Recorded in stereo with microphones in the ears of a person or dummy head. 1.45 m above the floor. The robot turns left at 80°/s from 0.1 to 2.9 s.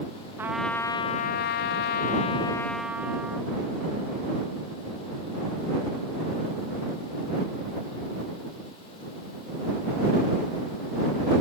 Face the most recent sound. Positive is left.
turn(degrees=-10)